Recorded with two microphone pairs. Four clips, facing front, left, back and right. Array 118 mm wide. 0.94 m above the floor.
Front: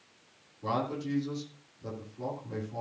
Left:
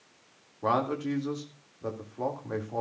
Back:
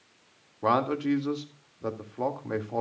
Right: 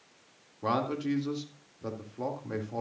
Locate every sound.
0.6 s a man speaking: 165° left, 2.0 m